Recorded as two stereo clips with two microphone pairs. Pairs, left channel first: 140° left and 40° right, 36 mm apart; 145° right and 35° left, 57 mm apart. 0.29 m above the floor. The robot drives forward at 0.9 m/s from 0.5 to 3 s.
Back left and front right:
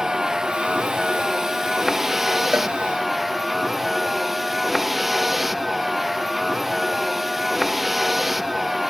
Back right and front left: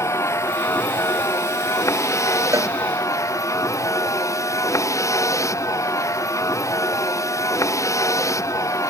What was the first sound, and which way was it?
A vehicle, 115° right.